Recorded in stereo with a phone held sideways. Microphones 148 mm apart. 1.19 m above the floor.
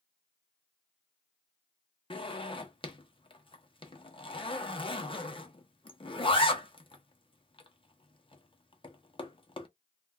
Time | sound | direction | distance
2.1 | a zipper | 35° left (ahead or behind) | 0.7 m